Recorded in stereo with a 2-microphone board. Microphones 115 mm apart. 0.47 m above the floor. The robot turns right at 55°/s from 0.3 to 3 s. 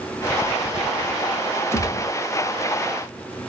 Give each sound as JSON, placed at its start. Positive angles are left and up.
{"t": 1.7, "sound": "a gunshot", "side_deg": 25, "distance_m": 0.6}